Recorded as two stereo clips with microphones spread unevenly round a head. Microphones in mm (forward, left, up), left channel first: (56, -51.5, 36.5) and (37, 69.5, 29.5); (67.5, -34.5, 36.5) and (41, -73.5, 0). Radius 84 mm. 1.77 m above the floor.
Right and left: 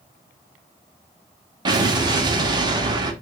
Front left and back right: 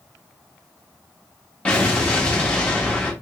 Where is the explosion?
50° left, 0.8 m.